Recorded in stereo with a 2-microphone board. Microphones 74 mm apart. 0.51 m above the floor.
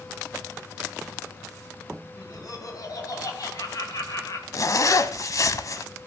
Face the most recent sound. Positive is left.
turn(degrees=50)  # may be behind; listen again after turning